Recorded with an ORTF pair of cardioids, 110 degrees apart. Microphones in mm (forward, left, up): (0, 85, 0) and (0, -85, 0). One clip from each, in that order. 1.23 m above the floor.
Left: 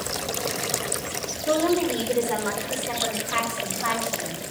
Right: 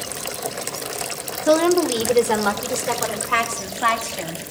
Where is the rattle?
I don't hear a rattle.